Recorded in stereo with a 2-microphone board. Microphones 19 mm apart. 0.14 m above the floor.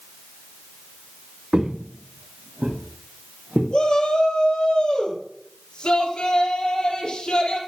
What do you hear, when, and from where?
1.5 s footsteps: 40° right (ahead or behind), 1.4 m; by 3.6 s 55° right (ahead or behind), 4.5 m
3.7 s a shout: 60° left (ahead or behind), 4.5 m